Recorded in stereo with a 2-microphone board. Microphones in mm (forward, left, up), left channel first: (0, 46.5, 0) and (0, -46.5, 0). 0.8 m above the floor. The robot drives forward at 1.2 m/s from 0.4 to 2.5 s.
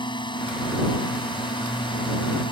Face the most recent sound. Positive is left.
turn(degrees=60)  # may be behind; listen again after turning